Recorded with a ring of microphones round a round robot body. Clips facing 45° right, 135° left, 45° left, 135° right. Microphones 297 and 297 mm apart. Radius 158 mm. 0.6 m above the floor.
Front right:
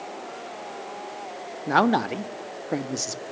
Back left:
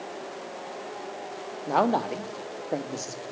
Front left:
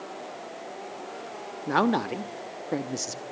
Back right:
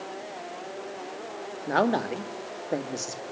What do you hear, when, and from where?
1.7 s a man speaking: 20° right, 1.4 m